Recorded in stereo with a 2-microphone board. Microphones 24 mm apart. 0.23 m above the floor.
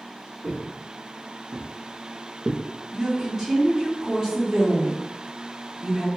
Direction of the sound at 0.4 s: 75° right (ahead or behind).